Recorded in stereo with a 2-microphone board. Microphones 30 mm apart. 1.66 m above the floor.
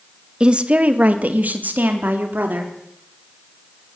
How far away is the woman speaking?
About 1.7 m.